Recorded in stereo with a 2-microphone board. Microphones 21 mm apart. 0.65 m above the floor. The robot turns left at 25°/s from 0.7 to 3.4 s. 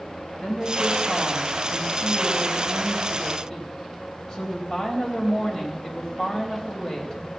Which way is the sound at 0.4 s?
100° left.